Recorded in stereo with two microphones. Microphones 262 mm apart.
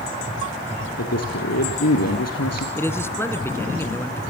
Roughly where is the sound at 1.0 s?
Left.